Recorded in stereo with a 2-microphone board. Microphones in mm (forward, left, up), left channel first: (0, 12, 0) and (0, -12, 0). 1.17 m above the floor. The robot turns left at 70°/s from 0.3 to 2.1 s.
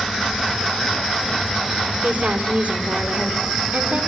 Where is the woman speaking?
75° right (ahead or behind), 3 m; by 4.1 s 80° right, 3 m.